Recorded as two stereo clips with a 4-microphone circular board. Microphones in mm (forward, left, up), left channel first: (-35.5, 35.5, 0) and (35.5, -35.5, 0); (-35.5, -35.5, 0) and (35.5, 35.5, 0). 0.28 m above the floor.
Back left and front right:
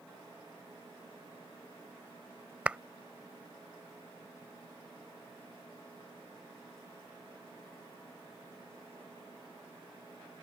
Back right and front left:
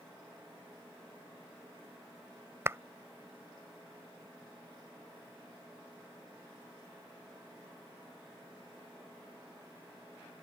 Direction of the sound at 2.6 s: 20° left.